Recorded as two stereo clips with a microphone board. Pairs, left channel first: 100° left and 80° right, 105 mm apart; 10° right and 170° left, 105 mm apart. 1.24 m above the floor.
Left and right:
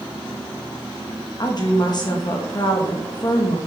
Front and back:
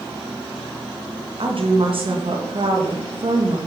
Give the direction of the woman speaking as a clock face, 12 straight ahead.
7 o'clock.